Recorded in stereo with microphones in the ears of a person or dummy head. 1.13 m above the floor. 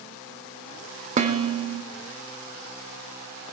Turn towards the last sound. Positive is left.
turn(degrees=-30)  # may be behind; listen again after turning